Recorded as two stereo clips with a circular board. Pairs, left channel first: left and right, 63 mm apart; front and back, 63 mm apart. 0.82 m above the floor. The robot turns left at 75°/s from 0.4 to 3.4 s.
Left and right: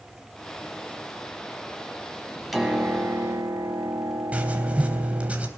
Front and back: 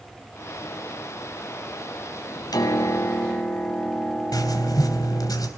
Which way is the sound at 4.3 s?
20° right.